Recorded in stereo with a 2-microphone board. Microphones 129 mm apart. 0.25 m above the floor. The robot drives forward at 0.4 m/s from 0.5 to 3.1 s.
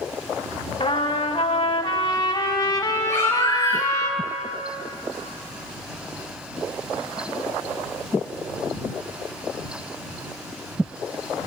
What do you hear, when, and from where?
0.8 s a trumpet: 45° left (ahead or behind), 0.6 m; by 4.1 s 25° left (ahead or behind), 1.0 m
3.1 s a baby crying: 20° left (ahead or behind), 2.5 m